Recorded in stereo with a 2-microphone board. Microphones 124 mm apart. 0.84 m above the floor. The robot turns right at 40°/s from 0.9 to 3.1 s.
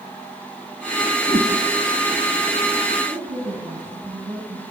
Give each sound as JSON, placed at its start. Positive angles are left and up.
{"t": 1.3, "sound": "a whoosh", "side_deg": -45, "distance_m": 3.5}
{"t": 3.0, "sound": "a woman speaking", "side_deg": -60, "distance_m": 7.5}